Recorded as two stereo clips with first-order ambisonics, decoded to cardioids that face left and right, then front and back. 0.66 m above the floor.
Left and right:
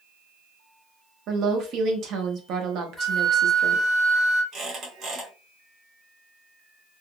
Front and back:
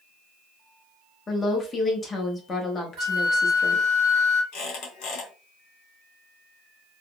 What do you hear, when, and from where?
1.3 s a woman speaking: 65° right, 0.8 m
3.0 s a flute: 165° left, 0.9 m
4.5 s a squeak: 30° right, 1.6 m